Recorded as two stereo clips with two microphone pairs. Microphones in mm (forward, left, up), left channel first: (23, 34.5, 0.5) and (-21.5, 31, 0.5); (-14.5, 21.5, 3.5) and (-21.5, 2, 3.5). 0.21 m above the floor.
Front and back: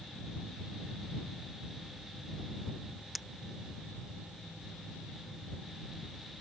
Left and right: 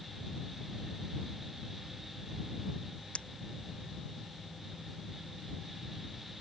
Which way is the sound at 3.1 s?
95° left.